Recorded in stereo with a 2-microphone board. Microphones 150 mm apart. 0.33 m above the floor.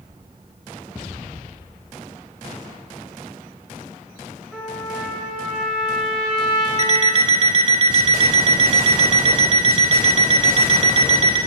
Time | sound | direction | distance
4.5 | a trumpet | 5° left (ahead or behind) | 2.5 m
6.8 | an alarm clock | 45° right (ahead or behind) | 0.6 m